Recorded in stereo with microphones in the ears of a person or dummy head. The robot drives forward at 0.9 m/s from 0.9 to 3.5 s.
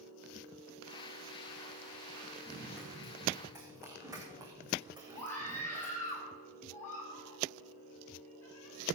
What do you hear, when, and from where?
2.5 s running footsteps: 5° right (ahead or behind), 4.5 m; by 6.2 s 25° right (ahead or behind), 5.5 m
5.2 s a scream: 15° left (ahead or behind), 9.5 m